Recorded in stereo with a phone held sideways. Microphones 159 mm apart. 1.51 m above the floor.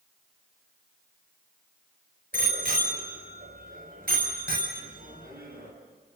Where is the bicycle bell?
70° right (ahead or behind), 4.5 m; by 5.7 s 75° right (ahead or behind), 6.5 m.